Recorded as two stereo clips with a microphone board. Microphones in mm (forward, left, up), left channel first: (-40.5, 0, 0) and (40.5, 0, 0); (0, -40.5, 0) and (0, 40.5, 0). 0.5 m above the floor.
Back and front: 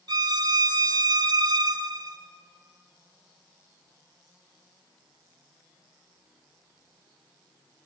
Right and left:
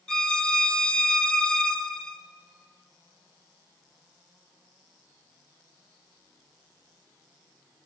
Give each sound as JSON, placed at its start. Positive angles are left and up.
{"t": 0.1, "sound": "a violin", "azimuth_deg": -10, "distance_m": 0.8}